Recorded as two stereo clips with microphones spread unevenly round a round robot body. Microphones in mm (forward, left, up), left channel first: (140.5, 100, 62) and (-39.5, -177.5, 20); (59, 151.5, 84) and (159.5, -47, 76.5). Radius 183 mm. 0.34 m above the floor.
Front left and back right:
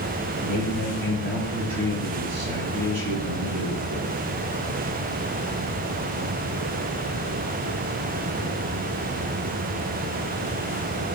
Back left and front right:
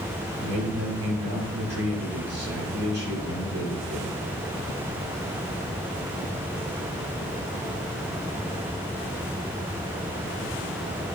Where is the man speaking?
85° right, 5.5 m.